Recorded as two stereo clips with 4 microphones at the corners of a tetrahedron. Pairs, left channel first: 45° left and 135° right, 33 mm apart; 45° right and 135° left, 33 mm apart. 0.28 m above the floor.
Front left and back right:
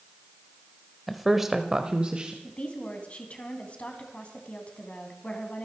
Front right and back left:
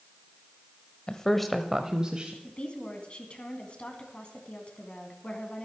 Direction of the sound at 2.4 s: Straight ahead.